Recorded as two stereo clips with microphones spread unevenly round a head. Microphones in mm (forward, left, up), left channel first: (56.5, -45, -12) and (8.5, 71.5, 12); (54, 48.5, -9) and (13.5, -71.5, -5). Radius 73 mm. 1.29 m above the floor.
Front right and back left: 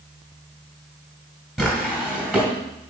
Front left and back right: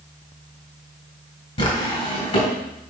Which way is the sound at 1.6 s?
30° left.